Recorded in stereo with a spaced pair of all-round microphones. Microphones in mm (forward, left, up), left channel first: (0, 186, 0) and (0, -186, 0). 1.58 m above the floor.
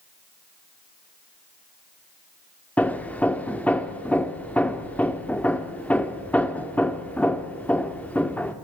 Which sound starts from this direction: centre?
Hammering, at 2.8 s.